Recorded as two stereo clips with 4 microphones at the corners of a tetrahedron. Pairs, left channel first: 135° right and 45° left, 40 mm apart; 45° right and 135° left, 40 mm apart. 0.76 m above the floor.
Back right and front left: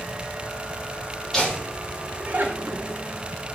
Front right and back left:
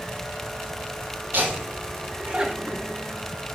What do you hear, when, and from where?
1.3 s laughter: 140° left, 1.3 m; by 3.0 s 40° left, 1.4 m